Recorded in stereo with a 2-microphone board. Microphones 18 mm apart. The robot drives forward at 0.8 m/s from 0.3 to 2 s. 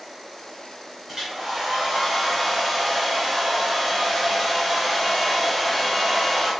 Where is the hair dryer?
25° right (ahead or behind), 1.3 m; by 6.5 s 15° right (ahead or behind), 2.0 m.